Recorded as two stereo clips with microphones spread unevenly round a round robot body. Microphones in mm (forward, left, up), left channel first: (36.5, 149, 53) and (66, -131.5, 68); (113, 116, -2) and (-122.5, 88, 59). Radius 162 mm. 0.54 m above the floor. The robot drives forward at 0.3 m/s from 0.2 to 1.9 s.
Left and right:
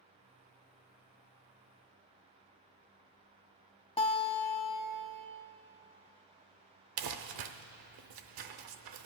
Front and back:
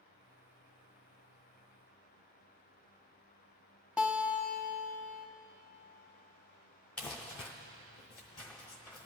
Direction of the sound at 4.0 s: 70° left.